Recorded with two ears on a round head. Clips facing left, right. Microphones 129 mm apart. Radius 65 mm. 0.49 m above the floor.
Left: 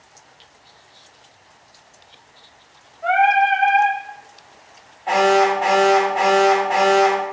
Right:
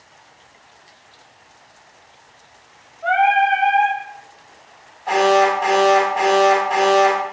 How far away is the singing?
About 0.7 m.